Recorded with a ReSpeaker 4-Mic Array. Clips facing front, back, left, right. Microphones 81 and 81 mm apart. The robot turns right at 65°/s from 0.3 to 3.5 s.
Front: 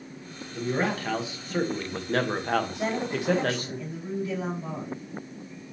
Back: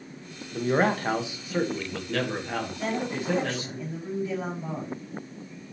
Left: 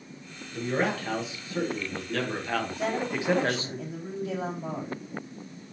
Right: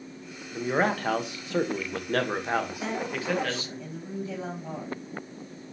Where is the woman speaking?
45° left, 3.5 m; by 5.0 s 90° left, 3.5 m.